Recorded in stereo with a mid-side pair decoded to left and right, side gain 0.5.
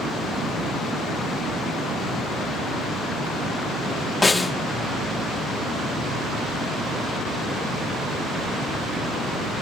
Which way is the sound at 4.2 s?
20° left.